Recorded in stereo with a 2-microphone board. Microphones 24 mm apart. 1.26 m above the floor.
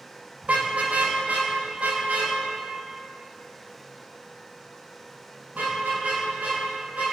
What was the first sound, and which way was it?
A car horn, 70° right (ahead or behind).